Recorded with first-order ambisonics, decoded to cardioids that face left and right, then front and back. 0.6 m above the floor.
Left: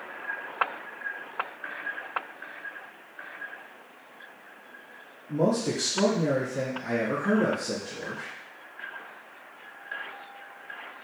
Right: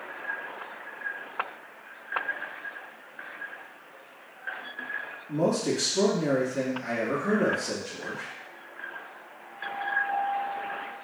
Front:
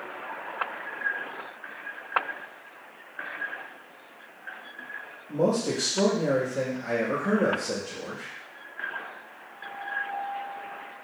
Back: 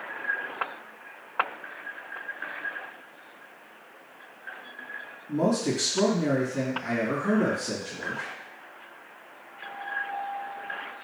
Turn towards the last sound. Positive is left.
turn(degrees=-170)